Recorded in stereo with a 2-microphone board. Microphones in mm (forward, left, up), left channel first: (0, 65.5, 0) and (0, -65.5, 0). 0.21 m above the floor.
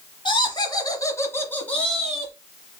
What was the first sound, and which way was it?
Laughter, 40° left (ahead or behind).